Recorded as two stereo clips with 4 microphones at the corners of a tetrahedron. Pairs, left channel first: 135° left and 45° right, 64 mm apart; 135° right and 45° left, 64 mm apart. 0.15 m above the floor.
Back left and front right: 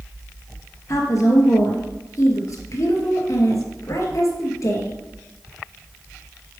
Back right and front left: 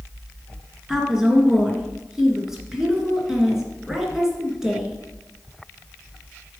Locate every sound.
0.9 s a woman speaking: 125° left, 2 m